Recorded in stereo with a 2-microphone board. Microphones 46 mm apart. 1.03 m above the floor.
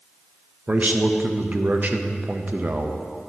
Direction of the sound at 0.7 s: 40° right (ahead or behind).